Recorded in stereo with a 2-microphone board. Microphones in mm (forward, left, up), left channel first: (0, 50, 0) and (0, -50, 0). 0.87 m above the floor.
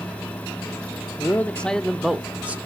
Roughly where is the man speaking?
Left.